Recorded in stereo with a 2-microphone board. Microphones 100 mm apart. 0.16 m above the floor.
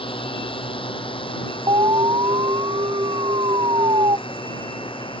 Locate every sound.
0.0 s a drone: 60° left (ahead or behind)
1.7 s an alarm: 50° right (ahead or behind)